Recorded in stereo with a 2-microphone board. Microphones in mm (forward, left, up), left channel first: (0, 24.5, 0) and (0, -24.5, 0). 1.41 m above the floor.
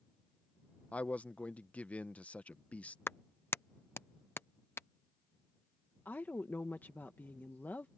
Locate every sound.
0.9 s a man speaking: 30° left (ahead or behind)
3.1 s a clap: 55° left (ahead or behind)
6.0 s a woman speaking: 40° left (ahead or behind)